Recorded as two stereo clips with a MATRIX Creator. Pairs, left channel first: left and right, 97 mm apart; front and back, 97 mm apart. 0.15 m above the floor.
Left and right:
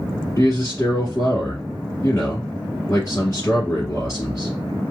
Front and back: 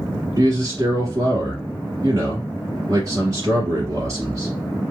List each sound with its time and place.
0.4 s a man speaking: 135° left, 1.8 m